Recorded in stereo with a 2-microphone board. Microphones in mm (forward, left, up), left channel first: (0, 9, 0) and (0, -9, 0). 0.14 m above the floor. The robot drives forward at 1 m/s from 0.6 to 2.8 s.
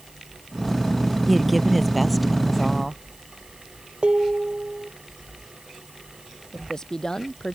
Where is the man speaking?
30° left (ahead or behind).